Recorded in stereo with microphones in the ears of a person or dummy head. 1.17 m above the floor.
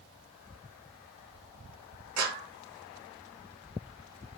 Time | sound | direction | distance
2.2 | a clap | 85° right | 4.5 m